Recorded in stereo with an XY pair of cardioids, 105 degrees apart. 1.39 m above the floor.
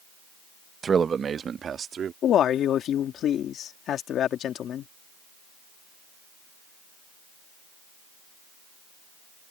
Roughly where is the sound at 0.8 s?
Ahead right.